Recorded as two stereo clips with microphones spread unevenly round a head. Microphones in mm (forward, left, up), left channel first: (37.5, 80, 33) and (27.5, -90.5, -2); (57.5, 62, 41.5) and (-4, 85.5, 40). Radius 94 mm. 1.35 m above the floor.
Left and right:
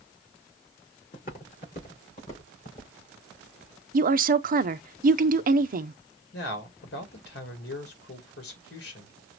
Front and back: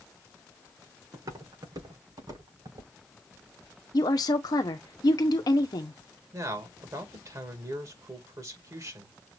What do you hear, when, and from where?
1.1 s footsteps: 135° left, 5 m; by 2.9 s 145° left, 5.5 m
3.9 s a woman speaking: 60° right, 0.7 m
6.3 s a man speaking: 125° left, 2.0 m